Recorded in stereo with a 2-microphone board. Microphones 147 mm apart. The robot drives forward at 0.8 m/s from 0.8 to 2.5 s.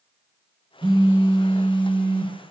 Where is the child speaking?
No child speaking in this recording.